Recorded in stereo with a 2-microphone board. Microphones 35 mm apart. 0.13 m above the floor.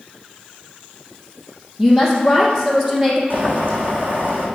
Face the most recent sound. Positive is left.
turn(degrees=-55)  # may be behind; listen again after turning